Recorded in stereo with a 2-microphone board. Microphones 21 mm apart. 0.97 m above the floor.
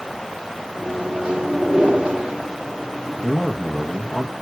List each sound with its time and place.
0.8 s a microwave: 75° right (ahead or behind), 2 m
3.2 s a man speaking: 15° right (ahead or behind), 1.3 m